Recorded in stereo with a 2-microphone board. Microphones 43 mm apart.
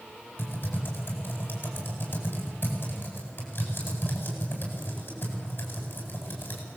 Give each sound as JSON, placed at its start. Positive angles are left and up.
{"t": 0.4, "sound": "typing on a keyboard", "side_deg": 45, "distance_m": 8.5}